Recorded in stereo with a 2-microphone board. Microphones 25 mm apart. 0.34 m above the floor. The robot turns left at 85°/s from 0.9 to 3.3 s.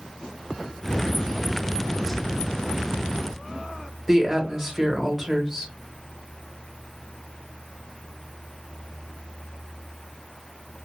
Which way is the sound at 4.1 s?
15° right (ahead or behind).